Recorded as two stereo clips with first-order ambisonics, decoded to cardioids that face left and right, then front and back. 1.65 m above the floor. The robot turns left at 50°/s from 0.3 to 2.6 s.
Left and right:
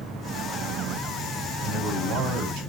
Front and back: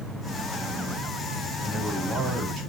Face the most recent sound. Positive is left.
turn(degrees=-125)